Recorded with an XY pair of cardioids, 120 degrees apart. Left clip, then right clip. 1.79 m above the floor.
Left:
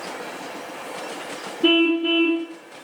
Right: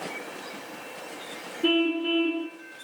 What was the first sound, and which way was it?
A car horn, 35° left.